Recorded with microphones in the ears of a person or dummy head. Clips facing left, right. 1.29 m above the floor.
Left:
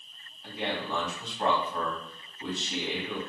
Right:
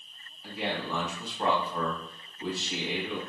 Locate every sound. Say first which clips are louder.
0.4 s a man speaking: even; centre (ahead or behind), 2.5 m